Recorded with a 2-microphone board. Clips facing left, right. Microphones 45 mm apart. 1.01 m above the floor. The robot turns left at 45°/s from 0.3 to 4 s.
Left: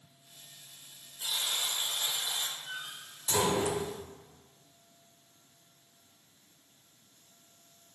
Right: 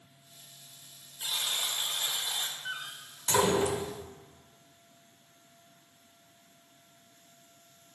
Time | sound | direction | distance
1.2 | a buzzer | 20° right (ahead or behind) | 0.7 m
2.6 | a door slam | 55° right (ahead or behind) | 0.5 m